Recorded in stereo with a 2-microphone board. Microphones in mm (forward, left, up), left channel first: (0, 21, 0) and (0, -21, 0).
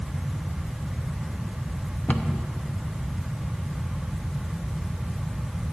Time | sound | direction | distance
2.1 | a cupboard door | 40° left (ahead or behind) | 0.9 m